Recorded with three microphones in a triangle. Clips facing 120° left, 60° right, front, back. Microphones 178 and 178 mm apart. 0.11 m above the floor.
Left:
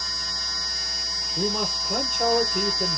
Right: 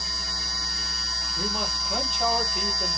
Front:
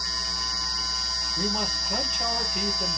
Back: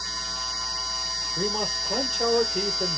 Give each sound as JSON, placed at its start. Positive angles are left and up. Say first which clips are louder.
{"t": 1.4, "sound": "a man speaking", "louder": "left 5 dB, back 2 dB", "azimuth_deg": 140, "distance_m": 2.5}